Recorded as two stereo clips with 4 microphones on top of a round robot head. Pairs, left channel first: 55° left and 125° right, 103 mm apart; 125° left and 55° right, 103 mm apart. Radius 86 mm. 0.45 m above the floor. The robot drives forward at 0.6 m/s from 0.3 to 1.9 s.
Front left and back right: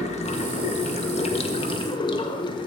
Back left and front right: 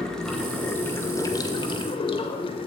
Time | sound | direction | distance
0.0 | running water | 45° left | 1.3 m